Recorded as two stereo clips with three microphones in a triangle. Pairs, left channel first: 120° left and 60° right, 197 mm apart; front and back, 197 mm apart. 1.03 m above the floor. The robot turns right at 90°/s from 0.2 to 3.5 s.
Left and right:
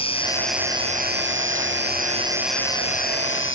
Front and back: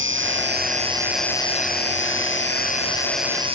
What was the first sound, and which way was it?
An insect, straight behind.